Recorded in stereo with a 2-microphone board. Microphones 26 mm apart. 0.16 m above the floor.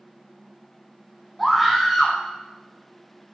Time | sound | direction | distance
1.4 | a scream | centre (ahead or behind) | 1.2 m